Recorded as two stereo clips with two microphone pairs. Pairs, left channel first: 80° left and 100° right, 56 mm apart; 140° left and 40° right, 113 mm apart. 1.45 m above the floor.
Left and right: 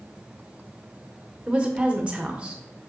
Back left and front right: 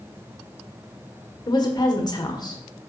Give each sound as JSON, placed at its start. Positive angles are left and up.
{"t": 1.5, "sound": "a woman speaking", "azimuth_deg": -165, "distance_m": 1.3}